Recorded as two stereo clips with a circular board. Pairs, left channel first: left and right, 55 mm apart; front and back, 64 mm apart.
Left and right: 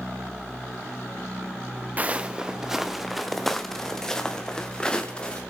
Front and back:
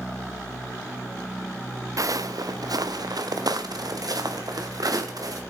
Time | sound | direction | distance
2.0 | footsteps | 150° right | 0.8 m